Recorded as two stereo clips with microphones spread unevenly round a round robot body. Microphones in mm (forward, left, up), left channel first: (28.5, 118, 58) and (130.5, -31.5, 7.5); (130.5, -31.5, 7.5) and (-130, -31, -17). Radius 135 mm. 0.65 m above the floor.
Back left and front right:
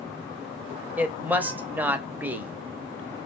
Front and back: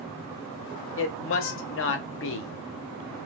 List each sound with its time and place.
1.0 s a woman speaking: straight ahead, 0.9 m